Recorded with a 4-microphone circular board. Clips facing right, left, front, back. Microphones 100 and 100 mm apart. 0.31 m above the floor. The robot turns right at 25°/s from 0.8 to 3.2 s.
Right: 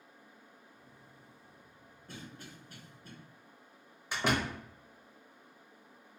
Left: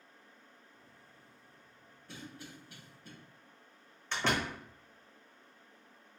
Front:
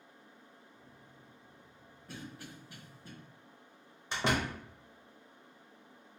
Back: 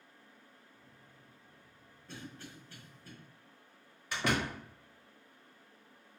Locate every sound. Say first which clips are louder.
2.1 s a cough: even, front 1 dB; 85° right, 1.3 m; by 3.1 s 55° right, 1.3 m
4.1 s a door slam: right 1 dB, front 1 dB; 25° right, 0.9 m